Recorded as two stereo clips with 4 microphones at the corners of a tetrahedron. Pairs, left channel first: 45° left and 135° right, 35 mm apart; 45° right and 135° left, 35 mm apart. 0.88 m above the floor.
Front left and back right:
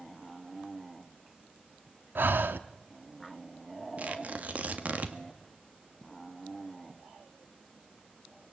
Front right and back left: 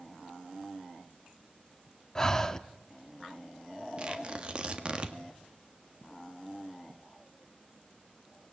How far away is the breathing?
About 1.0 m.